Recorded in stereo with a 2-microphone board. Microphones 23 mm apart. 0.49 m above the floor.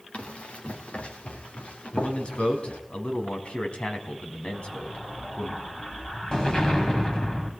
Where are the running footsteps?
70° left (ahead or behind), 4 m; by 2.8 s 80° left, 5.5 m.